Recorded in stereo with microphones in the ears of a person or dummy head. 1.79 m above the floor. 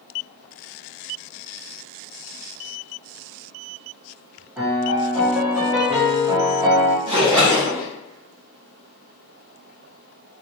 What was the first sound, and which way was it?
A piano, 5° right (ahead or behind).